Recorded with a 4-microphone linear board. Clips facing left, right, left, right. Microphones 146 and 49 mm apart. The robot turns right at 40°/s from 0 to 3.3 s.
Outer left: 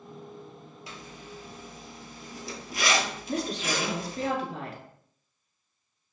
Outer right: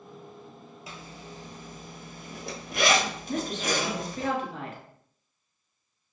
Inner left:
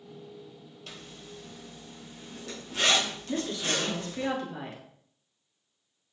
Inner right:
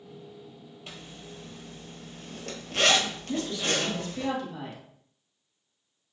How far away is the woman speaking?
About 1.4 m.